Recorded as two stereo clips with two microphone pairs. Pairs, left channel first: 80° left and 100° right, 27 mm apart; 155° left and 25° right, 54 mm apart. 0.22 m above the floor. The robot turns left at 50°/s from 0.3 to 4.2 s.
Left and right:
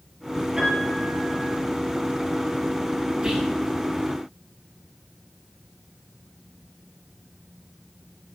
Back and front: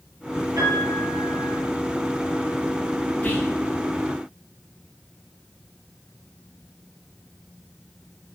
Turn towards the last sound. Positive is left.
turn(degrees=170)